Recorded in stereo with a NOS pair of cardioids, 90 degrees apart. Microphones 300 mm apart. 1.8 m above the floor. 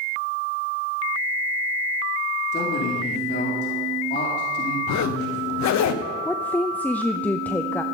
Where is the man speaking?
35° left, 4 m.